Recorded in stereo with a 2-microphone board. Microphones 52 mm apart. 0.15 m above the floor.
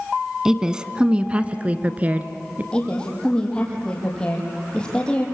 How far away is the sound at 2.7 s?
About 6 m.